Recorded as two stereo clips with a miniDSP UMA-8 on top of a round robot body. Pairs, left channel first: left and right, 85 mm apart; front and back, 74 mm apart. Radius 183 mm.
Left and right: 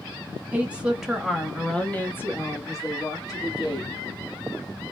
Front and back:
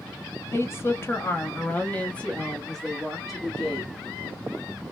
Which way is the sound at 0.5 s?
25° right.